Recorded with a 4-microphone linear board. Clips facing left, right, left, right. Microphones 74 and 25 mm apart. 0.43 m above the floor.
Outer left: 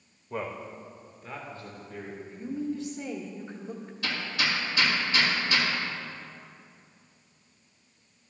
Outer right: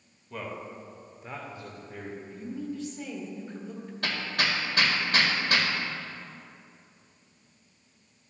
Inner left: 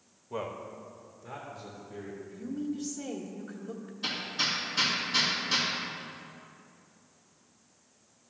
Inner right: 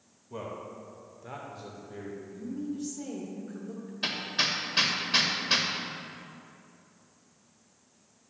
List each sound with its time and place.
0.3 s a man speaking: 25° left (ahead or behind), 1.2 m; by 2.2 s 25° right (ahead or behind), 1.9 m
2.3 s a woman speaking: 25° left (ahead or behind), 1.0 m
4.0 s hammering: 55° right (ahead or behind), 1.6 m